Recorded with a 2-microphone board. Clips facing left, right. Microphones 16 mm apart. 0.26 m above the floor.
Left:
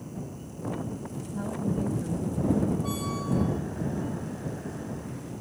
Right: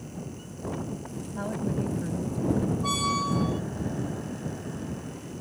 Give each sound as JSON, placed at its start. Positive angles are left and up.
{"t": 1.4, "sound": "a woman speaking", "side_deg": -30}
{"t": 2.8, "sound": "a squeak", "side_deg": -45}